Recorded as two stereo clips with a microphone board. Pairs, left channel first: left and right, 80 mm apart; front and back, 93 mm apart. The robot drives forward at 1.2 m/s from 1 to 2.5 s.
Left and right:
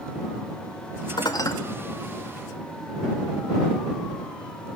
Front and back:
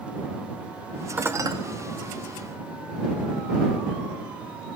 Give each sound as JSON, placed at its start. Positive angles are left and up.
{"t": 1.2, "sound": "dishes clattering", "azimuth_deg": 105, "distance_m": 0.7}